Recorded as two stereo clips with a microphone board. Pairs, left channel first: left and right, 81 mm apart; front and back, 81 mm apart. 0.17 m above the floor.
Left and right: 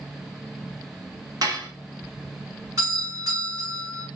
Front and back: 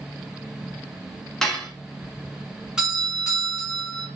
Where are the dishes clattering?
80° right, 0.9 m.